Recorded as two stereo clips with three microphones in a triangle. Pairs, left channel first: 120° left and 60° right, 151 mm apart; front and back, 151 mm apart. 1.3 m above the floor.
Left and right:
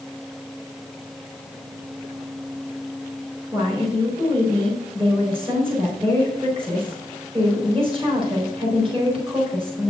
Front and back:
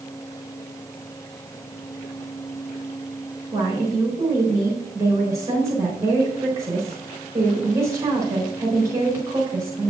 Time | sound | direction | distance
3.5 | a woman speaking | 115° right | 3.5 m